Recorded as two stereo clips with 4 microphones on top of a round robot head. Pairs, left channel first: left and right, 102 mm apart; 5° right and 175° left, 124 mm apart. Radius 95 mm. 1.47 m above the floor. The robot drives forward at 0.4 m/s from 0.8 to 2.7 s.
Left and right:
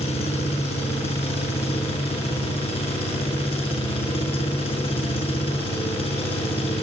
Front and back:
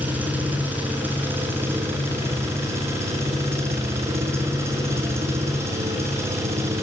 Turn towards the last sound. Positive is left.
turn(degrees=110)